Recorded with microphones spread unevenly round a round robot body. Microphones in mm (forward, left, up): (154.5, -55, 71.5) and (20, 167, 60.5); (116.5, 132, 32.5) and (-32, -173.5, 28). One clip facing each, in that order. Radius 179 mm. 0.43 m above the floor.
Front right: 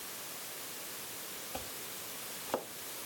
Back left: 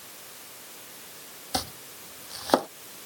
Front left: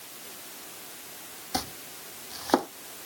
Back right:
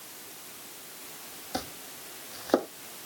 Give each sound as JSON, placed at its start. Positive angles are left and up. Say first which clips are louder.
{"t": 1.5, "sound": "chopping", "louder": "back left 12 dB, front left 1 dB", "azimuth_deg": 140}